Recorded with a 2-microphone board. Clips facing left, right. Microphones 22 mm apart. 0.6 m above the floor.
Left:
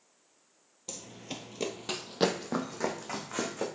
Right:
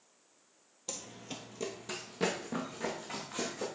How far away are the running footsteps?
About 0.7 m.